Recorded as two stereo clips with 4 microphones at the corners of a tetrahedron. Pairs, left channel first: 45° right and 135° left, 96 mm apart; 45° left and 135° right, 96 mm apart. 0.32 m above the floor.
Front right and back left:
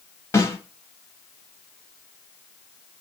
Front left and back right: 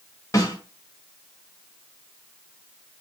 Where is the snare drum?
5° left, 1.0 m.